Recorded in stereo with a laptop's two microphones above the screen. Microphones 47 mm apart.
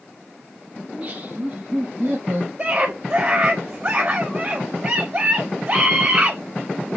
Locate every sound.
0.8 s laughter: 35° right (ahead or behind), 3 m; by 2.5 s 70° right (ahead or behind), 1.3 m
2.6 s a scream: 45° right (ahead or behind), 4 m